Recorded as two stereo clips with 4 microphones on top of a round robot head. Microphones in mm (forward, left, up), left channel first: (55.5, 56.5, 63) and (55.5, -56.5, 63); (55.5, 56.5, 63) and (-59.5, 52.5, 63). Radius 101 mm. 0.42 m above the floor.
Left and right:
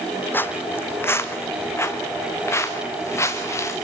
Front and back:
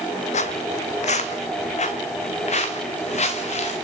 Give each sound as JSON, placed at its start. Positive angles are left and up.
{"t": 0.3, "sound": "footsteps", "azimuth_deg": 20, "distance_m": 1.4}